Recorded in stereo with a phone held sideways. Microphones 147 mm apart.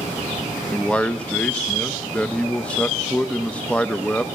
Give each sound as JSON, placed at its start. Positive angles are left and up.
{"t": 0.7, "sound": "a man speaking", "side_deg": 10, "distance_m": 0.6}